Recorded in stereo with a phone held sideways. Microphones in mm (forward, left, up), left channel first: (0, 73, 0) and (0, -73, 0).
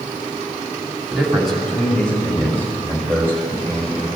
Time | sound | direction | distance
1.1 | a man speaking | 5° right (ahead or behind) | 3 m